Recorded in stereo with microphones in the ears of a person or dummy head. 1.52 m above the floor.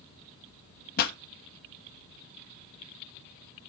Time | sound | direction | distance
1.0 | a pop | 60° left (ahead or behind) | 1.4 m